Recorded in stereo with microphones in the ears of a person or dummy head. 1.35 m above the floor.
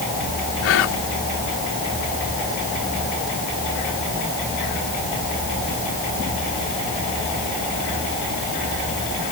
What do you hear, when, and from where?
0.6 s whispering: 75° left (ahead or behind)